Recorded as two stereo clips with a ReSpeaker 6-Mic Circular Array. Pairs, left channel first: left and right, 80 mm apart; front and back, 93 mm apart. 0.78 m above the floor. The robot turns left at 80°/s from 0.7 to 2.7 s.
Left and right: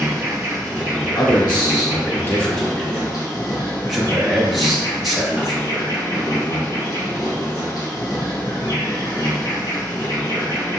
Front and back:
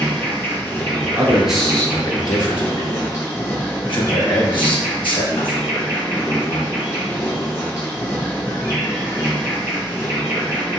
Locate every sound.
0.0 s an insect: 140° right, 2 m; by 10.8 s 60° left, 2 m
1.2 s a man speaking: 125° left, 1.3 m; by 5.7 s straight ahead, 1.3 m